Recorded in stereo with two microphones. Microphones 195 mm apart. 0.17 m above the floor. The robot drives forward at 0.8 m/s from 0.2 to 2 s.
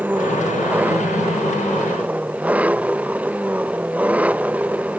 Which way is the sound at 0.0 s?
10° right (ahead or behind).